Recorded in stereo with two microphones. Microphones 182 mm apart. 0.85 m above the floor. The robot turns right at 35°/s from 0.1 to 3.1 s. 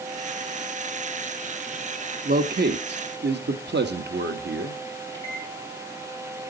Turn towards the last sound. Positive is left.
turn(degrees=15)  # may be behind; listen again after turning